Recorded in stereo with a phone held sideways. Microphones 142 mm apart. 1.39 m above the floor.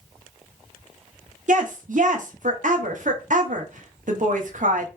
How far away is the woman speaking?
About 0.7 m.